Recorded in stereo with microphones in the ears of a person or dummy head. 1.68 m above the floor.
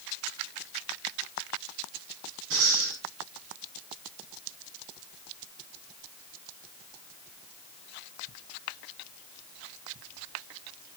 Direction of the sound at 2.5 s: 80° right.